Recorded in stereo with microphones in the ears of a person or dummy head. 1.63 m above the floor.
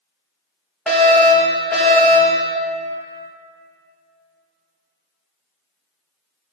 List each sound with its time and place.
0.9 s a fire alarm: 5° left (ahead or behind), 4.5 m